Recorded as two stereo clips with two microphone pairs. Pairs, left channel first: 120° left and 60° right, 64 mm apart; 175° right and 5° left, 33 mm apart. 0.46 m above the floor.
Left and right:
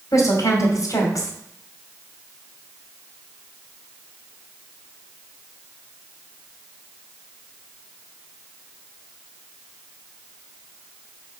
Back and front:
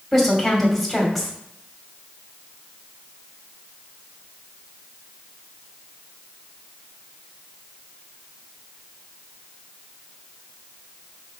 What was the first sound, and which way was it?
A woman speaking, 95° left.